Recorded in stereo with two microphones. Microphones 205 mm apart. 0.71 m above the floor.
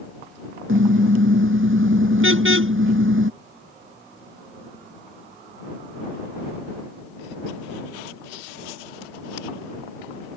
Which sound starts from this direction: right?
A car horn, at 0.7 s.